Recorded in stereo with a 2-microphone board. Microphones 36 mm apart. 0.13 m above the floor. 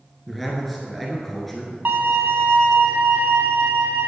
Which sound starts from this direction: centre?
A man speaking, at 0.3 s.